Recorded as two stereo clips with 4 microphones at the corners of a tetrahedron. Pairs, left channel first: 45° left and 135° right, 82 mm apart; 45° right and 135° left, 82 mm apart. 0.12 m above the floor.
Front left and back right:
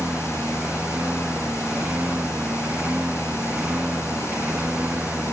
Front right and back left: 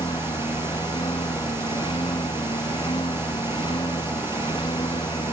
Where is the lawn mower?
60° right; by 5.3 s 65° right.